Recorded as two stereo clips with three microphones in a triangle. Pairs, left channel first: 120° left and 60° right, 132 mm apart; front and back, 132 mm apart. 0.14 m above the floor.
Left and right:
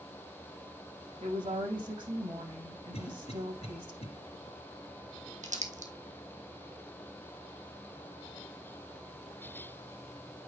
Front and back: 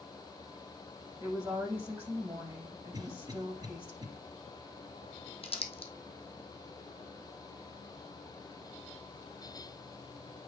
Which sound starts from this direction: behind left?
A cough, at 2.9 s.